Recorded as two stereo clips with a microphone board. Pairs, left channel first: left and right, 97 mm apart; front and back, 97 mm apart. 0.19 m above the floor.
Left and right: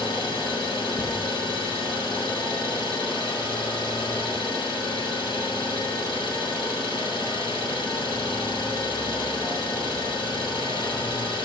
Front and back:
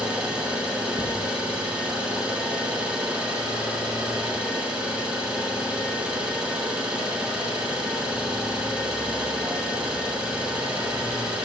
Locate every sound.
0.0 s an engine running: 100° left, 0.9 m